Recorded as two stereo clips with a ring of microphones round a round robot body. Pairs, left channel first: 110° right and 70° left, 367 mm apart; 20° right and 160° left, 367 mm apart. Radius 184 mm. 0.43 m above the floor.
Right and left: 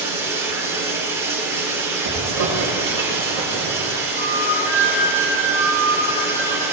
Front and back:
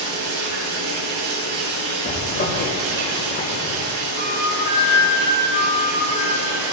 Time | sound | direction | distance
0.0 | running water | 150° left | 5 m
2.0 | a zipper | 35° left | 4 m
4.2 | a flute | 90° right | 3 m